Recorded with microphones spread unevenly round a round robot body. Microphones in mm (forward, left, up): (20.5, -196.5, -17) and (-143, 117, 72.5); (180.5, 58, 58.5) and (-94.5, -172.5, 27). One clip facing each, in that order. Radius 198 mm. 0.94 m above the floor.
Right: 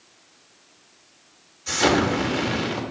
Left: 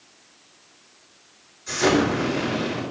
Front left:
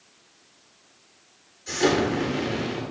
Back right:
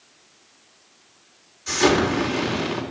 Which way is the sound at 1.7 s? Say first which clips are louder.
Left 1 dB, back right 3 dB; 75° right.